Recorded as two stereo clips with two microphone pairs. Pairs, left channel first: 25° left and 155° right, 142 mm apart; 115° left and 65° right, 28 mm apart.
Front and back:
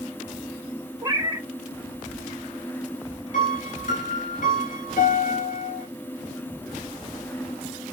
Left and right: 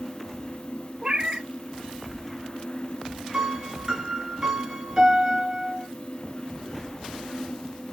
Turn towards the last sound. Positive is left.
turn(degrees=10)